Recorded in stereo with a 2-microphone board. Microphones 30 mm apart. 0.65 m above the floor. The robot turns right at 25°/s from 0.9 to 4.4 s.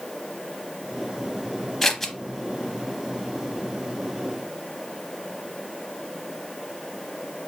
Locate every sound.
1.8 s scissors: 15° left (ahead or behind), 0.6 m; by 2.1 s 10° left (ahead or behind), 0.6 m